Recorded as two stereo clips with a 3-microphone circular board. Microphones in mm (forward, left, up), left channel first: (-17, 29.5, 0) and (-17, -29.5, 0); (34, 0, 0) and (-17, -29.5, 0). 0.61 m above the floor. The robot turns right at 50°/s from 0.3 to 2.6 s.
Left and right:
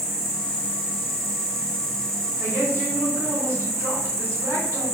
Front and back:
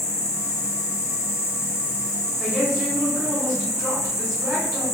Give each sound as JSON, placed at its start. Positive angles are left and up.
{"t": 0.0, "sound": "an insect", "azimuth_deg": 5, "distance_m": 0.7}
{"t": 2.4, "sound": "a woman speaking", "azimuth_deg": -65, "distance_m": 1.0}